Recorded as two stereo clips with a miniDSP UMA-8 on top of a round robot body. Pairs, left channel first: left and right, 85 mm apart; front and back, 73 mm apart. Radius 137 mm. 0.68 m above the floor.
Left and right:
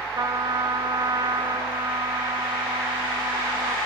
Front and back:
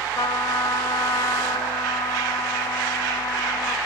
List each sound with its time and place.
0.2 s a trumpet: 35° right, 0.8 m